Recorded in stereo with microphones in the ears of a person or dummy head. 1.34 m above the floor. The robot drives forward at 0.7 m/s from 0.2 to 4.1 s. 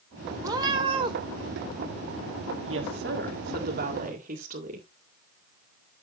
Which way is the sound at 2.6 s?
60° right (ahead or behind).